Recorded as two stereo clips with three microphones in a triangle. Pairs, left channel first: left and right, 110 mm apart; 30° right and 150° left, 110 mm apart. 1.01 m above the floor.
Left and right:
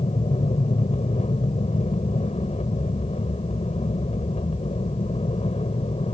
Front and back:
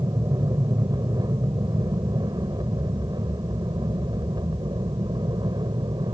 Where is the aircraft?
95° left; by 6.1 s 105° left.